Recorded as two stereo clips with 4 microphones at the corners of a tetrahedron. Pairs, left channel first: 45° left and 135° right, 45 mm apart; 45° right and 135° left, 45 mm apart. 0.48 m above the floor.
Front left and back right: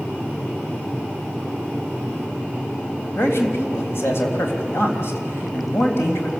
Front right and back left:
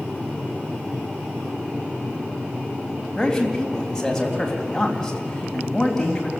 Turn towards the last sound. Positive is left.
turn(degrees=35)